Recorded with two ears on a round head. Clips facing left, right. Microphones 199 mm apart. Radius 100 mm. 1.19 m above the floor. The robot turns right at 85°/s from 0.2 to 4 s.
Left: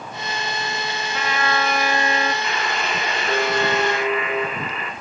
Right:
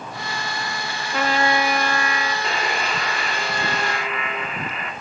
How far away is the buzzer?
About 4 m.